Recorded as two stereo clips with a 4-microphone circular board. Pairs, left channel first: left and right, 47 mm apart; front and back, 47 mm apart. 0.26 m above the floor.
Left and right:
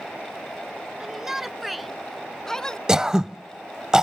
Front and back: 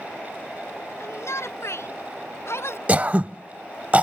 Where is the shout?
15° right; by 2.8 s 15° left.